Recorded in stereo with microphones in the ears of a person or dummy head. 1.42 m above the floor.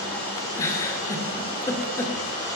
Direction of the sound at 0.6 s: 15° left (ahead or behind).